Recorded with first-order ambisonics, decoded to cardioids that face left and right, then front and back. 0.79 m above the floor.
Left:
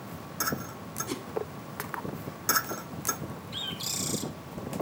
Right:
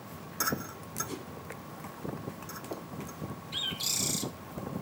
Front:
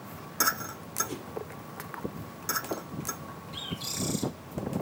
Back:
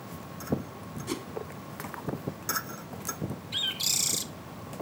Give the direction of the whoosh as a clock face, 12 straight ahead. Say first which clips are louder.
Left 4 dB, back 4 dB; 7 o'clock.